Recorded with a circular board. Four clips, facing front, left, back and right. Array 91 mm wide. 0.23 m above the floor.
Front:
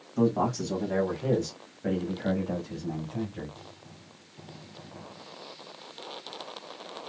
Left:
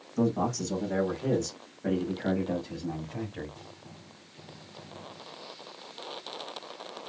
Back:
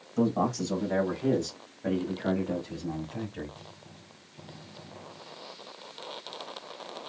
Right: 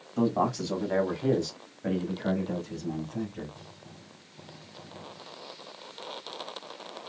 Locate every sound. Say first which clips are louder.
0.2 s a man speaking: right 1 dB, front 1 dB; 85° right, 1.8 m; by 3.6 s 100° left, 1.7 m